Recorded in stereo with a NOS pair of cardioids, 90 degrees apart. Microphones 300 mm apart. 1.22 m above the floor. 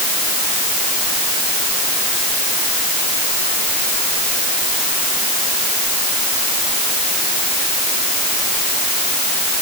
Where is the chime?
No chime in this recording.